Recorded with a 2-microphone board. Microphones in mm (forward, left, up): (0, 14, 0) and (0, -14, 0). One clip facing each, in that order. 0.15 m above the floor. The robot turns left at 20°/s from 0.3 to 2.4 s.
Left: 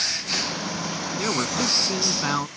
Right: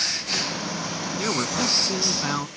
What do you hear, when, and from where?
1.2 s a man speaking: 5° left (ahead or behind); by 2.5 s 15° left (ahead or behind)